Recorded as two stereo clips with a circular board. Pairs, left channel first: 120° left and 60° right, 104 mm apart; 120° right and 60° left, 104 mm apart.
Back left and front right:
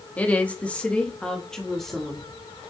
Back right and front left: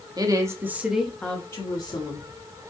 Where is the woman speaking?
50° left, 1.1 m; by 2.3 s 150° right, 1.4 m.